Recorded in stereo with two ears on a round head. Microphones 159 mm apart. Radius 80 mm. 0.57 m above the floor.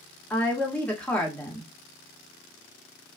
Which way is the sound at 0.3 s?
5° left (ahead or behind).